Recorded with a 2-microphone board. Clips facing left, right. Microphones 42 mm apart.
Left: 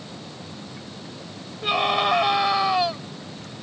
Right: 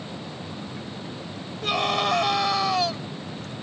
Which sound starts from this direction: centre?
A scream, at 1.6 s.